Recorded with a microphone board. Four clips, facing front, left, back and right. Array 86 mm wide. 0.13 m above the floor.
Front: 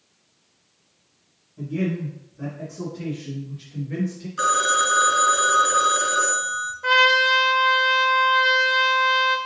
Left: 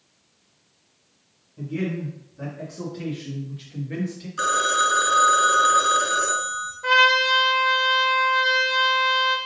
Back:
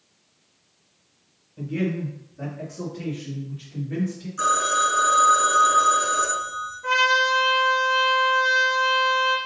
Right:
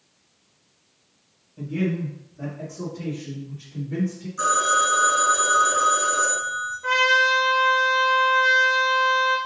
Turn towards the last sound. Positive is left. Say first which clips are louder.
# left 1 dB, front 2 dB
turn(degrees=25)